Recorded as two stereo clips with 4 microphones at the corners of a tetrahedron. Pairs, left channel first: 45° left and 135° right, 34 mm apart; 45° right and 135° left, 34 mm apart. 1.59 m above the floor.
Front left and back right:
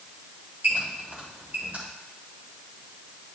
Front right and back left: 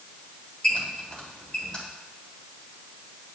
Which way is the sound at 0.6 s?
105° right.